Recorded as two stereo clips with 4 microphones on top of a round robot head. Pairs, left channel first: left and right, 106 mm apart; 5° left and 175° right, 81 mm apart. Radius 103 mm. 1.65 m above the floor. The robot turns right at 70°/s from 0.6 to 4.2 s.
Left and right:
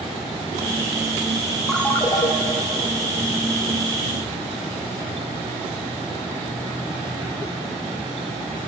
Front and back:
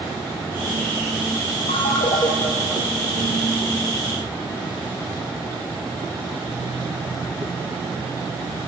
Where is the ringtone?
5° left, 2.0 m; by 2.3 s 45° left, 2.0 m.